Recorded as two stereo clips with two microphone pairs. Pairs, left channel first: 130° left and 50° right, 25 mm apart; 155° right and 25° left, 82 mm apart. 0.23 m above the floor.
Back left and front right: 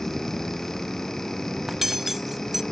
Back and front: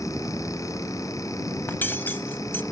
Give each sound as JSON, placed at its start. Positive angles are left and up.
{"t": 1.7, "sound": "cutlery clinking", "azimuth_deg": -115, "distance_m": 0.6}